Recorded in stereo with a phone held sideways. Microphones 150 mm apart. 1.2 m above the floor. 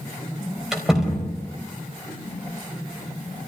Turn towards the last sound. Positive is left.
turn(degrees=-5)  # may be behind; listen again after turning